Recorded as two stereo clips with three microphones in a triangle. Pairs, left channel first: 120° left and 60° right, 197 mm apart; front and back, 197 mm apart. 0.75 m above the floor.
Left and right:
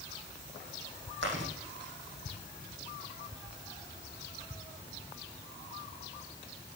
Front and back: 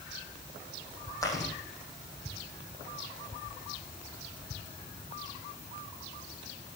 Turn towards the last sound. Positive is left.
turn(degrees=-75)